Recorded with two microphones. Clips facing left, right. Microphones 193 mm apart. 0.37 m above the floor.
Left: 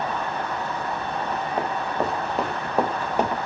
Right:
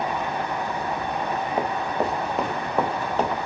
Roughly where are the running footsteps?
Centre.